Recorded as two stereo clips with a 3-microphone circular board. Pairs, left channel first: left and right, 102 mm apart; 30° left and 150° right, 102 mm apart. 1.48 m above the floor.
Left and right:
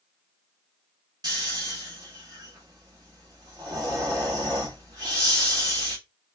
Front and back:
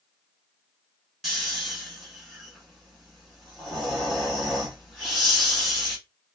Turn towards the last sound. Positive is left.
turn(degrees=-60)